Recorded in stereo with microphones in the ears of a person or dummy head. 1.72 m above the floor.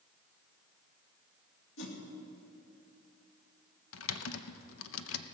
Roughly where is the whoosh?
Left.